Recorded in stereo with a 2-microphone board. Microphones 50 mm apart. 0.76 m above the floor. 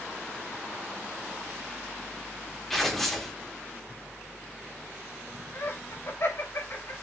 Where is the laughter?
55° left (ahead or behind), 4 m.